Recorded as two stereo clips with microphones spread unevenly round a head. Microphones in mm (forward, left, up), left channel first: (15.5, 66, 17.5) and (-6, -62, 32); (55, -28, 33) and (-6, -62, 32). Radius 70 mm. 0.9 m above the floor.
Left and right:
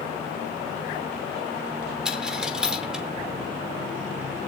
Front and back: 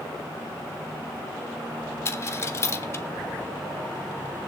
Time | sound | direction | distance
2.0 | a dropped coin | 20° right | 0.9 m